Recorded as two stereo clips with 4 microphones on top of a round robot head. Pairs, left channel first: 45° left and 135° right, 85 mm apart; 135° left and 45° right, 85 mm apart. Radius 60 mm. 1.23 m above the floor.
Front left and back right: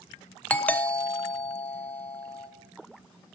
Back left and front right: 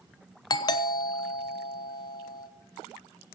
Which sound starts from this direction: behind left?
A doorbell, at 0.5 s.